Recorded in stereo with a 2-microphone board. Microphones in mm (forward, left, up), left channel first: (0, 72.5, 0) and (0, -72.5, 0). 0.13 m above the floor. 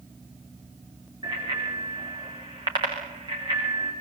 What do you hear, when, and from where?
1.2 s a bicycle bell: 35° right (ahead or behind), 9 m